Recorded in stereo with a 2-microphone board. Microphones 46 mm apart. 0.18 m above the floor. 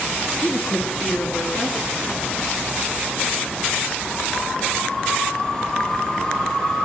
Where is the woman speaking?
40° left (ahead or behind), 2.5 m.